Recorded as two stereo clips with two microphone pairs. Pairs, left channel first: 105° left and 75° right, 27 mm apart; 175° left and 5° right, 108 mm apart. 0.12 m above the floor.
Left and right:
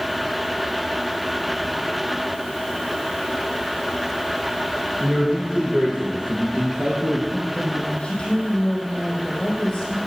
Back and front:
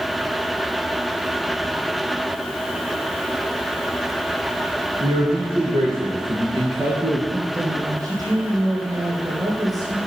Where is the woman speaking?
50° left, 5 m.